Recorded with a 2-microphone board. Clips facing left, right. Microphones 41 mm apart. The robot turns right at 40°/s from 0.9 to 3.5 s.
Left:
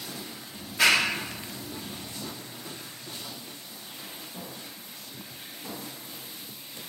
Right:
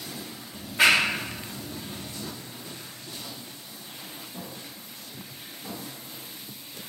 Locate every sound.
0.5 s a clap: 20° right (ahead or behind), 0.8 m